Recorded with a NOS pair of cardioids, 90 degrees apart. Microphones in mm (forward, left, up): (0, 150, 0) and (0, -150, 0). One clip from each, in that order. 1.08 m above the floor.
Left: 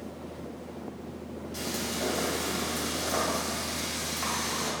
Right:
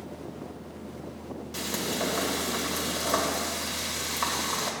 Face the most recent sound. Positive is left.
turn(degrees=-60)